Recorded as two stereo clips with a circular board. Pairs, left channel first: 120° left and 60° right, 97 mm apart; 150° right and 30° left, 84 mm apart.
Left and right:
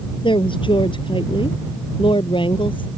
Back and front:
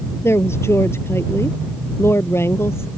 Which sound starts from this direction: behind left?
A woman speaking, at 0.2 s.